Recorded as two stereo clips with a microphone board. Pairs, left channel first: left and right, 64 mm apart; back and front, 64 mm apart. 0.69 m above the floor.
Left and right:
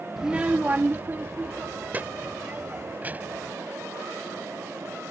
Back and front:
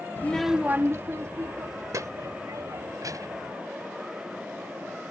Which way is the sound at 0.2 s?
175° right.